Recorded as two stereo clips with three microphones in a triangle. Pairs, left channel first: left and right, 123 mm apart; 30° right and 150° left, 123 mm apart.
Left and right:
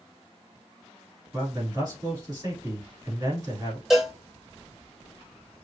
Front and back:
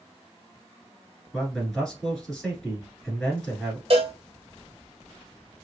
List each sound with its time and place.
1.3 s a man speaking: 115° right, 1.7 m
3.9 s a cowbell: 175° right, 1.1 m